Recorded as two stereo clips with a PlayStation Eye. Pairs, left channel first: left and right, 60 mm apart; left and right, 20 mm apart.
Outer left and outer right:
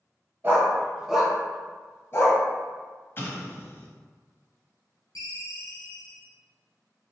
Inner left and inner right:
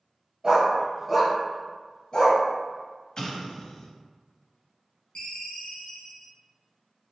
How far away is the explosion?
About 0.6 m.